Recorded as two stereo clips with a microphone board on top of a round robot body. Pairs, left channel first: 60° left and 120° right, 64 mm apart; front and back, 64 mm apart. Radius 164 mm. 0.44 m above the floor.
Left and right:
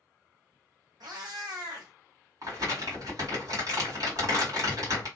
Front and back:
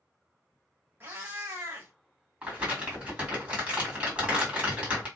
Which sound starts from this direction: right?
Crumpling, at 2.4 s.